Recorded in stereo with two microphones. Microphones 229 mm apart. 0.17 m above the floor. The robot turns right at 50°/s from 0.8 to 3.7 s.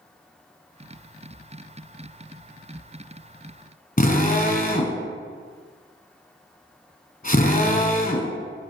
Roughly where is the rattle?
No rattle in this recording.